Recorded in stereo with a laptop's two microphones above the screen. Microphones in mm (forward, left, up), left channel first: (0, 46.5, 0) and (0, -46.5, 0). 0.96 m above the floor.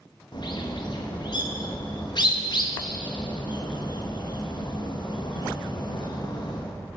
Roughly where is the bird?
Left.